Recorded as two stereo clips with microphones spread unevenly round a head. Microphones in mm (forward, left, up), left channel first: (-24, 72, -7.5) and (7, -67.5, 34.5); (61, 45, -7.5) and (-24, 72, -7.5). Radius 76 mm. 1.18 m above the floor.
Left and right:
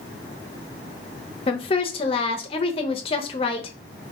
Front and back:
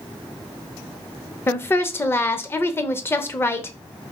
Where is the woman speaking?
45° left, 0.6 m.